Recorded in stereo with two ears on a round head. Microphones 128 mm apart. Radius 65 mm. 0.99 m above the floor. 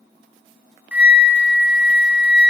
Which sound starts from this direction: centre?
A flute, at 0.9 s.